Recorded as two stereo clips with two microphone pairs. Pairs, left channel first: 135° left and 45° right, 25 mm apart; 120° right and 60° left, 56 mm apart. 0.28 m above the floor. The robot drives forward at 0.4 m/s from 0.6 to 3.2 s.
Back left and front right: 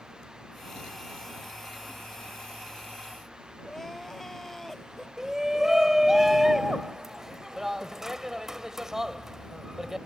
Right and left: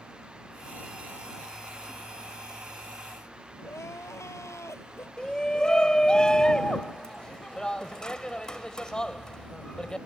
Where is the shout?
80° right.